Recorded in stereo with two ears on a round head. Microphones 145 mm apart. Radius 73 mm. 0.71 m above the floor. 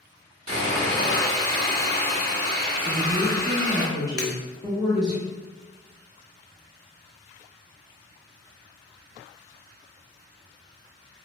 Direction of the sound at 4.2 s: 5° left (ahead or behind).